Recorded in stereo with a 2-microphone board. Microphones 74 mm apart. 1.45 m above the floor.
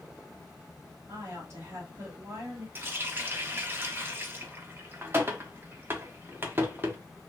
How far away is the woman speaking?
About 1.6 m.